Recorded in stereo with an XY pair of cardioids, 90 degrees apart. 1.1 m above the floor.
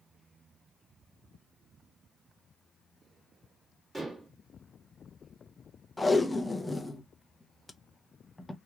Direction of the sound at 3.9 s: 20° right.